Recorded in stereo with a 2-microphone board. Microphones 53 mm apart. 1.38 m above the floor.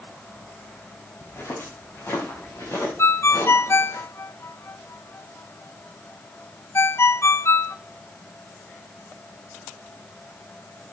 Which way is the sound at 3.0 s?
55° left (ahead or behind).